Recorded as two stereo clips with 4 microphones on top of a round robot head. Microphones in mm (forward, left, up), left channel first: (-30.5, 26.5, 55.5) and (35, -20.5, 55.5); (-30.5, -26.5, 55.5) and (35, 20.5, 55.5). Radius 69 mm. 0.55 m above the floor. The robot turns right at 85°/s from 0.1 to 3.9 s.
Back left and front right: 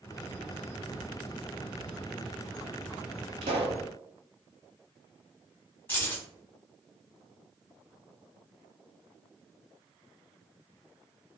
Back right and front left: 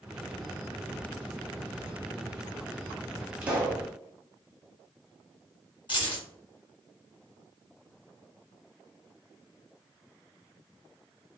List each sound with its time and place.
3.4 s a pop: 45° right, 0.8 m; by 3.8 s 5° right, 0.8 m
5.9 s keys jangling: 150° right, 1.5 m